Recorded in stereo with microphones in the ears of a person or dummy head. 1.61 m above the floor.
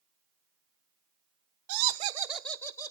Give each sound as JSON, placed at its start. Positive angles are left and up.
{"t": 1.7, "sound": "laughter", "side_deg": -70, "distance_m": 0.6}